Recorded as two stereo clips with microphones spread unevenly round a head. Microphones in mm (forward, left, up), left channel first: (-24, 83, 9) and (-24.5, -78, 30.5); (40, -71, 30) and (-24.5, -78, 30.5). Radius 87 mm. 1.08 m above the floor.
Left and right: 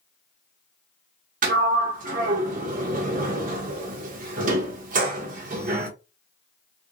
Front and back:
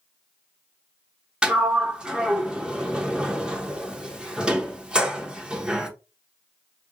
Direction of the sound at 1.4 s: 105° right.